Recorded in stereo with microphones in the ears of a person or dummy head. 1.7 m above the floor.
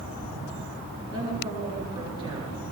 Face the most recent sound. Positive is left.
turn(degrees=-30)  # may be behind; listen again after turning